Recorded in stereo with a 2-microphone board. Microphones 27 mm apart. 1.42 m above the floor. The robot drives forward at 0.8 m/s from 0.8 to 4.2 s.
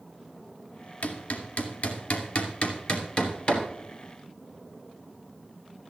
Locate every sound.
1.0 s hammering: 70° left (ahead or behind), 2 m; by 3.6 s 35° left (ahead or behind), 3.5 m